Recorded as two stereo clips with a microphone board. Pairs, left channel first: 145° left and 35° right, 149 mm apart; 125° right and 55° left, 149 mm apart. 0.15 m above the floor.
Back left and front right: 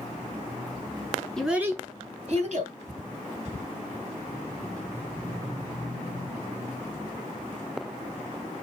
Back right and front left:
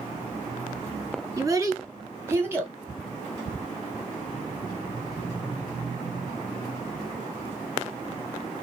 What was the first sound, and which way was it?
A child speaking, 70° left.